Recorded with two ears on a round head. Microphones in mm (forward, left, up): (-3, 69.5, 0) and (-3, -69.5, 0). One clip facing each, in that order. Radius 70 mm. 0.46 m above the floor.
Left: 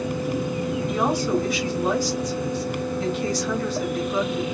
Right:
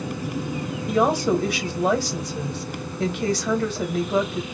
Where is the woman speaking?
55° right (ahead or behind), 1.9 m.